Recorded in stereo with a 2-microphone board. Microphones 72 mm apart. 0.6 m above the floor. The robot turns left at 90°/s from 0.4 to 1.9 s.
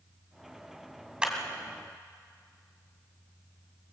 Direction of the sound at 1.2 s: 15° right (ahead or behind).